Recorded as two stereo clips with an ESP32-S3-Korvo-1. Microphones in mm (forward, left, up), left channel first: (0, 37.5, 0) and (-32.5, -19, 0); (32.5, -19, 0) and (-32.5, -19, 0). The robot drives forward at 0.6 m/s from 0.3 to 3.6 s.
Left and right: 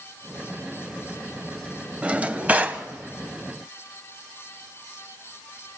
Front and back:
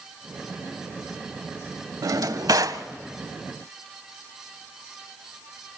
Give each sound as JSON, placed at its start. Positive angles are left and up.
{"t": 2.0, "sound": "a drawer", "azimuth_deg": 170, "distance_m": 0.8}